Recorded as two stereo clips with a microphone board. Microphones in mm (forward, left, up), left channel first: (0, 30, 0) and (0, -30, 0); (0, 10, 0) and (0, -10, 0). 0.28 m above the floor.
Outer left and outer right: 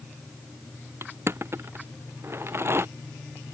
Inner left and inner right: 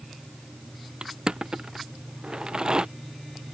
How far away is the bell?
No bell in this recording.